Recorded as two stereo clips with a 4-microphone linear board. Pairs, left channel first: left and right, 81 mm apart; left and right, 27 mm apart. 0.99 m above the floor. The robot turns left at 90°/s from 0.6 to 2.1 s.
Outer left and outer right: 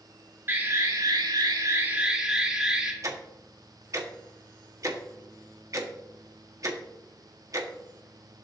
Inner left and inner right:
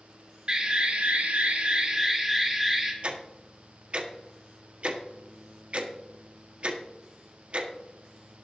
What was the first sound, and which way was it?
An alarm, 35° right.